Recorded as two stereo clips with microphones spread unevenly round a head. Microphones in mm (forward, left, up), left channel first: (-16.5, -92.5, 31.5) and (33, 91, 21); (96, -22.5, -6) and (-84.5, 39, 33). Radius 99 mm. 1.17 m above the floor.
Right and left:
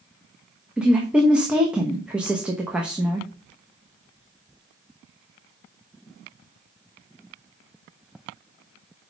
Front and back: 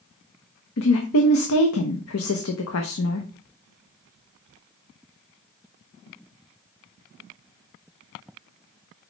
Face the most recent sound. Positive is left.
turn(degrees=-10)